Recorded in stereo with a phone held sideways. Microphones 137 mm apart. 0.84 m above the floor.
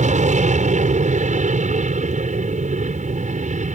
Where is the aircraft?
60° right (ahead or behind); by 3.8 s 65° right (ahead or behind).